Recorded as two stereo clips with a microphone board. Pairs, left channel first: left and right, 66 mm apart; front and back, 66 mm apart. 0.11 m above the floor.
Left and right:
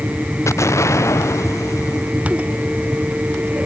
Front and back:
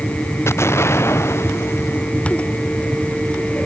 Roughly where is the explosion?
Ahead left.